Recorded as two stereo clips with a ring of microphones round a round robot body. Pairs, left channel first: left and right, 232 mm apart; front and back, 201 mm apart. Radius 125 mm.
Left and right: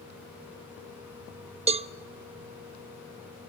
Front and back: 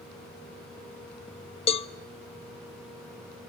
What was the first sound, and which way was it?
A cowbell, 45° right.